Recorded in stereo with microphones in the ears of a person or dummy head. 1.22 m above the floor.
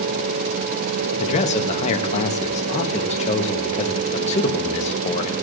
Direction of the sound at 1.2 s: 35° left (ahead or behind).